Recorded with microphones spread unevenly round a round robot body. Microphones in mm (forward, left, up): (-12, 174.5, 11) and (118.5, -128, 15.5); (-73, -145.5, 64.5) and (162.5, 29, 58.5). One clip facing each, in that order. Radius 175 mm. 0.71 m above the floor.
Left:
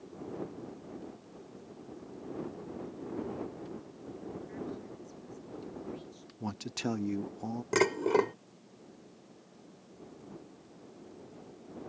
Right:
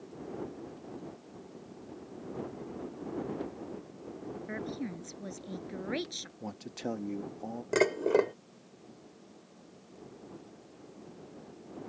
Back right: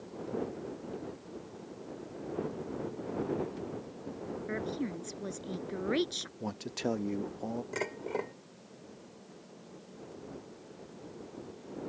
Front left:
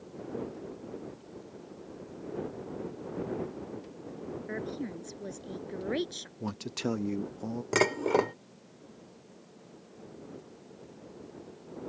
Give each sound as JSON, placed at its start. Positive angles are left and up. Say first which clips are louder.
{"t": 4.5, "sound": "a woman speaking", "louder": "right 4 dB, back right 2 dB", "azimuth_deg": -60}
{"t": 6.4, "sound": "a man speaking", "louder": "left 3 dB, front left 1 dB", "azimuth_deg": 90}
{"t": 7.7, "sound": "dishes clattering", "louder": "right 1 dB, front left 9 dB", "azimuth_deg": 45}